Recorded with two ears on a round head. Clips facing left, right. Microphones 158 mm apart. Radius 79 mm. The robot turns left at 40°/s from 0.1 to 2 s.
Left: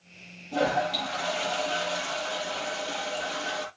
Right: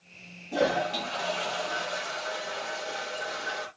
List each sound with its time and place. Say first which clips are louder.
0.5 s a toilet flushing: even; 165° right, 8.5 m; by 3.7 s 135° left, 8.5 m